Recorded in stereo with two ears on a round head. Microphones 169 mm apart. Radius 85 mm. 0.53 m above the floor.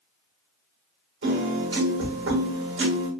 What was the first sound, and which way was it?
A piano, 60° right (ahead or behind).